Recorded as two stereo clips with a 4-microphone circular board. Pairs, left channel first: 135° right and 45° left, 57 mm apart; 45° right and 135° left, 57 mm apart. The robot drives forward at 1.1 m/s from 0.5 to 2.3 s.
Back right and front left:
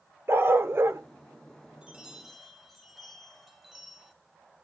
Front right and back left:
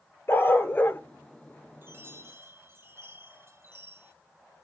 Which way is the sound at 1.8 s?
110° left.